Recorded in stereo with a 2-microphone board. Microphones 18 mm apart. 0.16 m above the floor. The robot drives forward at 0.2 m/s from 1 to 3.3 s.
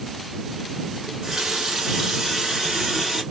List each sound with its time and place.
1.0 s a running tap: 40° right (ahead or behind), 1.1 m; by 3.2 s 30° right (ahead or behind), 1.4 m